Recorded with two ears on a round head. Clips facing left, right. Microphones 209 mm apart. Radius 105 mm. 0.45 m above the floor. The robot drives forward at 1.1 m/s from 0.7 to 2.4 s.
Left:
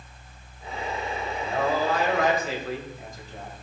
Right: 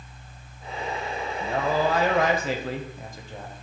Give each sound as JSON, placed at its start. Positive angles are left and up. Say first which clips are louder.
{"t": 1.4, "sound": "a man speaking", "louder": "right 1 dB", "side_deg": -60, "distance_m": 2.0}